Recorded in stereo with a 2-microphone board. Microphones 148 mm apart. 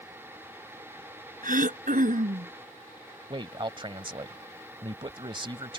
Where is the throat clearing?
65° right (ahead or behind).